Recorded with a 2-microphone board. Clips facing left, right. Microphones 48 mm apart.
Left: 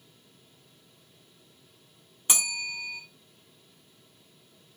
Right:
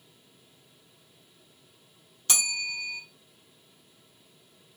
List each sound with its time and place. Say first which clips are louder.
2.3 s a bell: right 1 dB; 20° left (ahead or behind), 0.6 m